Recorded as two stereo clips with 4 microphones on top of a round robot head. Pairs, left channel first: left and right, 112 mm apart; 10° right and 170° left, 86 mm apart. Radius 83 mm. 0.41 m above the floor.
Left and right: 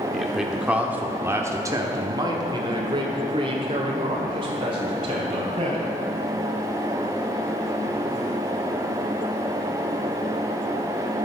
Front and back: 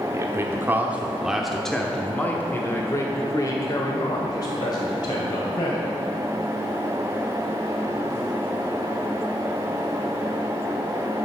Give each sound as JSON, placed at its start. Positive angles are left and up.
{"t": 0.1, "sound": "a man speaking", "azimuth_deg": 180, "distance_m": 1.2}